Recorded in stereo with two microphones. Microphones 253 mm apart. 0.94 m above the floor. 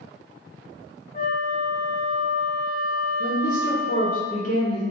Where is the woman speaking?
30° left (ahead or behind), 0.7 m.